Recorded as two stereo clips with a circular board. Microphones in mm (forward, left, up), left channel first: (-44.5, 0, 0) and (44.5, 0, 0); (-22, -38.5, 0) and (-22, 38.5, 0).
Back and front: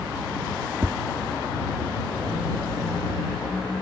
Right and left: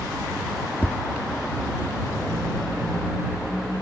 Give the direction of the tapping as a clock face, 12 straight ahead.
1 o'clock.